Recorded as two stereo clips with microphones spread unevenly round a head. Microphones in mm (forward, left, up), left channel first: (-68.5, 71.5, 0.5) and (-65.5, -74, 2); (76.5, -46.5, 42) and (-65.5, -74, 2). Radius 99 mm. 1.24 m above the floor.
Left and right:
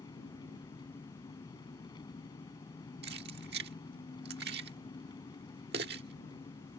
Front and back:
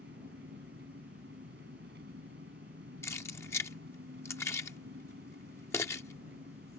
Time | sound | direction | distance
0.0 | an engine running | 150° left | ?
3.0 | keys jangling | 60° right | ?